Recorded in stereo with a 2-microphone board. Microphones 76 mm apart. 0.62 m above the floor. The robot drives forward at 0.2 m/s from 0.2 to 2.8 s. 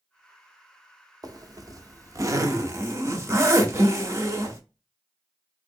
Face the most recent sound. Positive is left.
turn(degrees=-40)  # may be behind; listen again after turning